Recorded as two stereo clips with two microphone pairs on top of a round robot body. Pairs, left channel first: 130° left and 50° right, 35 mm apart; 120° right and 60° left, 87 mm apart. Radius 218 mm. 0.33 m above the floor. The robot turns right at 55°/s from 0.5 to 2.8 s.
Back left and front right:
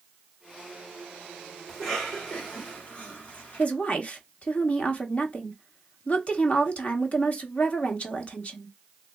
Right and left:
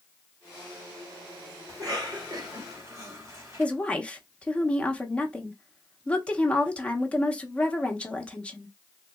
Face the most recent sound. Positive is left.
turn(degrees=150)